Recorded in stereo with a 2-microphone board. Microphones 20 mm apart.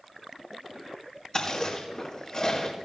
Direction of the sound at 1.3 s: 40° left (ahead or behind).